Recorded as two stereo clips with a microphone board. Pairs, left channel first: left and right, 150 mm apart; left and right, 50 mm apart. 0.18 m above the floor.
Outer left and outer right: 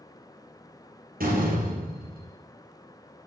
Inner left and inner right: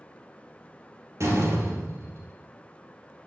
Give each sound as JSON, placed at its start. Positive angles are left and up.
{"t": 1.2, "sound": "a door slam", "side_deg": -75, "distance_m": 3.0}